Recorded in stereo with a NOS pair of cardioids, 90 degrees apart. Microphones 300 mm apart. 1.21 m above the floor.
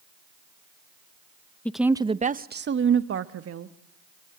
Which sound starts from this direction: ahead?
A woman speaking, at 1.6 s.